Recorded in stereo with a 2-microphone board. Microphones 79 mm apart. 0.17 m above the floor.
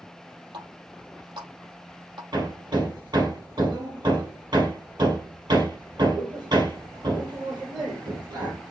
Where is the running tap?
75° right (ahead or behind), 4 m.